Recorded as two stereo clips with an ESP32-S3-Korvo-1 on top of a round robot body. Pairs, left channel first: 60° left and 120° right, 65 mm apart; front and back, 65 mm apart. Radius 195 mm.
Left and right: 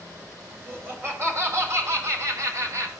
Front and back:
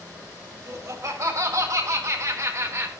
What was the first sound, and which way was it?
Laughter, 165° right.